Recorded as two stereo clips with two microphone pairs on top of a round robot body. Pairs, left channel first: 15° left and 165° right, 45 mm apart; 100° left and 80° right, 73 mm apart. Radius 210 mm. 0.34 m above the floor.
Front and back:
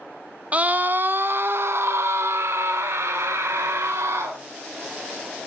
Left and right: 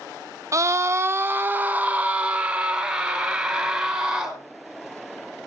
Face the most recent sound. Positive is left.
turn(degrees=-165)